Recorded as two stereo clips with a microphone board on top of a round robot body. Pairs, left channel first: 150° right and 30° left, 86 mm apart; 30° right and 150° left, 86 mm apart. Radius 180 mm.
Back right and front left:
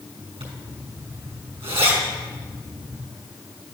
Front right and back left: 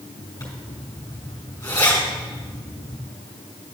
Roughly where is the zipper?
Ahead.